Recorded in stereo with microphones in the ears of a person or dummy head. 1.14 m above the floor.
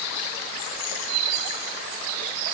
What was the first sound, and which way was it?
Only background noise.